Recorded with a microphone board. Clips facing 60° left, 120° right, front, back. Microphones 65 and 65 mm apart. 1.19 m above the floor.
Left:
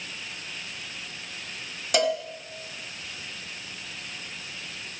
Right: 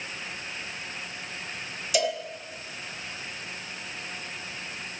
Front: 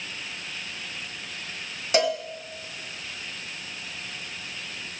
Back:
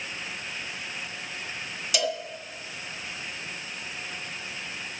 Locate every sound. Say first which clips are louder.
1.9 s a cowbell: left 3 dB, front 6 dB; 45° left, 1.7 m